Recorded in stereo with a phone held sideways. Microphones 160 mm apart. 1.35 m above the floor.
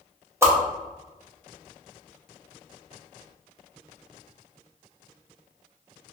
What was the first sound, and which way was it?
A whoosh, 15° right (ahead or behind).